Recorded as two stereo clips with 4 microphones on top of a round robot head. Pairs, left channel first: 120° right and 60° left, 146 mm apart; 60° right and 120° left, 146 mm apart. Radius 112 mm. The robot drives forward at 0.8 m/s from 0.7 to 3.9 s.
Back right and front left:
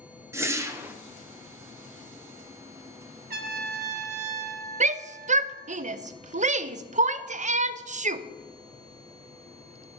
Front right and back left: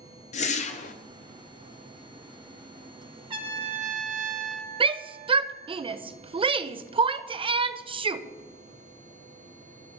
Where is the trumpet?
65° left, 1.3 m; by 5.8 s 90° left, 1.2 m.